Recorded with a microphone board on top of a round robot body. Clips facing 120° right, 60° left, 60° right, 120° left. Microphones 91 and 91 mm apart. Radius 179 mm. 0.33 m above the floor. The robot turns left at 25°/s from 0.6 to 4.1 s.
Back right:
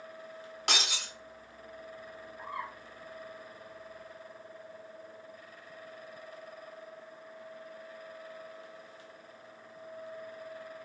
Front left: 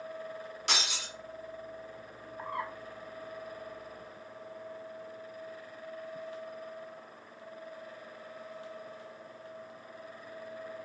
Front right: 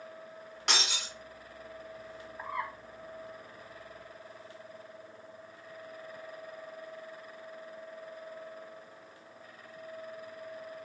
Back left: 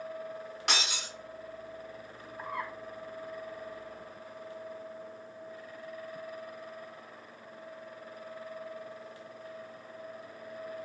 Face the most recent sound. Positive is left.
turn(degrees=0)